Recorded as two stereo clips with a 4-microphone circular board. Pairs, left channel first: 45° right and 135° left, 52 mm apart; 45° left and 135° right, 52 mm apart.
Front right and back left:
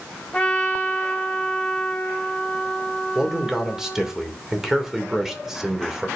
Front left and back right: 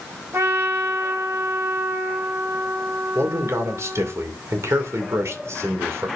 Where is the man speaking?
145° right, 2.5 m.